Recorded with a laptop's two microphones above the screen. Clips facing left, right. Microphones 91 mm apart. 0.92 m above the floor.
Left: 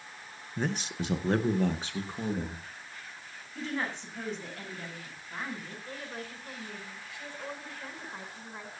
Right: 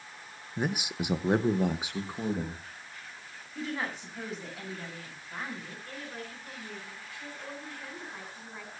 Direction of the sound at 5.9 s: 20° left (ahead or behind).